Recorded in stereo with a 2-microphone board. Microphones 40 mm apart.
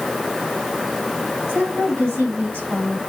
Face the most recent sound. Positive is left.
turn(degrees=-70)  # may be behind; listen again after turning